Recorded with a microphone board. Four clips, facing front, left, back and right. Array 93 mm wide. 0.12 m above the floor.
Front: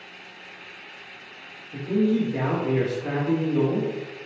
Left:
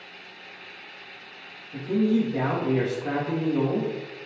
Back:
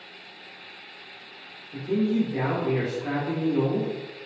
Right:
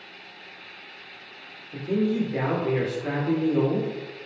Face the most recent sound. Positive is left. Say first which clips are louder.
# left 2 dB, front 2 dB
turn(degrees=-90)